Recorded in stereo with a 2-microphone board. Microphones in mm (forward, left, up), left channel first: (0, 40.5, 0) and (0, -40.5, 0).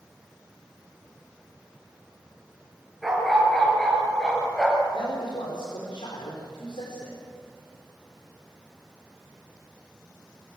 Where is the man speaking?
85° left, 5 m.